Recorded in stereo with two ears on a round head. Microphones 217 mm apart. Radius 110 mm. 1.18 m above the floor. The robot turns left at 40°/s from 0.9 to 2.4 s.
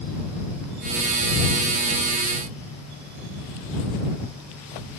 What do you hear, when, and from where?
Only background noise.